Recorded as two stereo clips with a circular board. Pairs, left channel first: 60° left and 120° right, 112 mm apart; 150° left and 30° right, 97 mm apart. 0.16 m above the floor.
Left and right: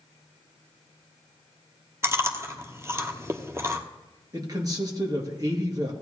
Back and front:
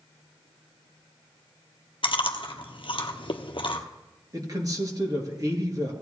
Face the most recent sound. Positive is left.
turn(degrees=-75)